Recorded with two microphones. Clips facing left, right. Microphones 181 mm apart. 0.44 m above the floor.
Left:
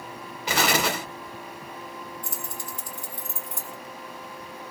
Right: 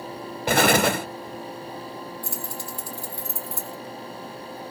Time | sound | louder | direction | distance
0.5 | an explosion | right 6 dB | 55° right (ahead or behind) | 0.6 m
2.2 | keys jangling | right 3 dB | 20° left (ahead or behind) | 1.5 m